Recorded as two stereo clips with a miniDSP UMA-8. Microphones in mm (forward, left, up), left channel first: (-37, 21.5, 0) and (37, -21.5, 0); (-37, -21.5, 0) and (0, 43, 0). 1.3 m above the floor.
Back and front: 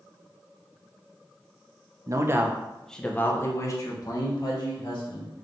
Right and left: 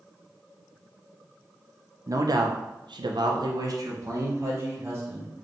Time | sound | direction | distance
2.1 | a man speaking | 20° left | 0.6 m